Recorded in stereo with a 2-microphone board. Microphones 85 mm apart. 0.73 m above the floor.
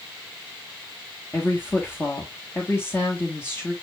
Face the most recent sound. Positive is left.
turn(degrees=25)  # may be behind; listen again after turning